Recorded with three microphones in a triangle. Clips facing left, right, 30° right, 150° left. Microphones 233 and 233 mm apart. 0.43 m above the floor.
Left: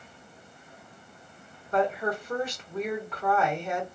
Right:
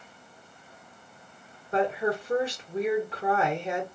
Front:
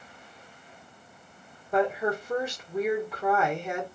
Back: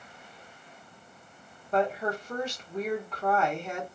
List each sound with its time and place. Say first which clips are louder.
1.7 s a woman speaking: right 1 dB, front 2 dB; 100° right, 1.4 m